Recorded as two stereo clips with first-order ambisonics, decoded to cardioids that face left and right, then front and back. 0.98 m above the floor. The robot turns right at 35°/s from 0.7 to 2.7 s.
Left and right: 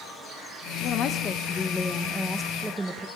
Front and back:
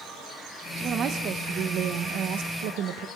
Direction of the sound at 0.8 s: 125° left.